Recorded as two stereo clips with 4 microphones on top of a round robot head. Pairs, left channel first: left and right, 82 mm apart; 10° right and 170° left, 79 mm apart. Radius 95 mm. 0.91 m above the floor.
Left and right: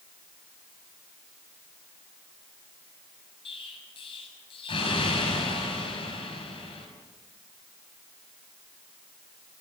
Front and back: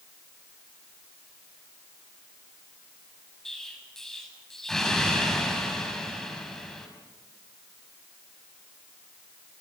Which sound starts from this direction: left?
An explosion, at 3.5 s.